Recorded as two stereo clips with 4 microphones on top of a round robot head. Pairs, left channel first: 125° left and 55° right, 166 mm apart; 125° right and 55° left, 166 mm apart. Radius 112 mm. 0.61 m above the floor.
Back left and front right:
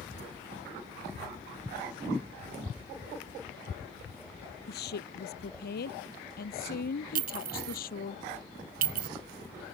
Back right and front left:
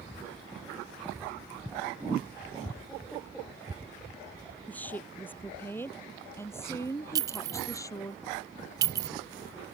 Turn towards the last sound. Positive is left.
turn(degrees=-15)